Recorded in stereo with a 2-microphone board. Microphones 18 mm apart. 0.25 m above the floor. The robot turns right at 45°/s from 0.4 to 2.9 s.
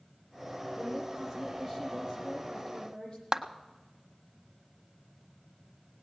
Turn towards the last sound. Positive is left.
turn(degrees=-35)  # may be behind; listen again after turning